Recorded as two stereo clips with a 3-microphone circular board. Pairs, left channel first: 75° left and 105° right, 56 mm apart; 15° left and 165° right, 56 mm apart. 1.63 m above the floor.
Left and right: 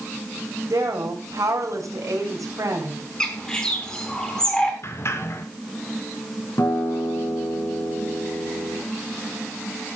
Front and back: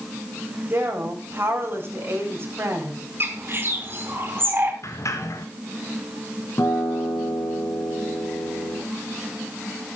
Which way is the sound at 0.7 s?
120° right.